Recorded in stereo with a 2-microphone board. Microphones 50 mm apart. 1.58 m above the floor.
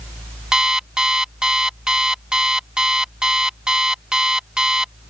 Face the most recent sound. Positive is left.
turn(degrees=-15)  # may be behind; listen again after turning